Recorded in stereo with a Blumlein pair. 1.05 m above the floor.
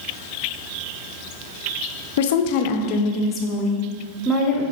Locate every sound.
2.2 s a woman speaking: 55° left, 1.0 m; by 4.6 s 15° left, 2 m